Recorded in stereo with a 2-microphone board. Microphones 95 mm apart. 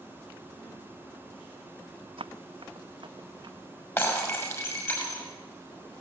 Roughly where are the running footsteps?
Right.